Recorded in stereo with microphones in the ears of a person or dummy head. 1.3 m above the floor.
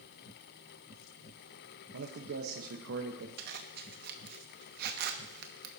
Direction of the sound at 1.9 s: 85° right.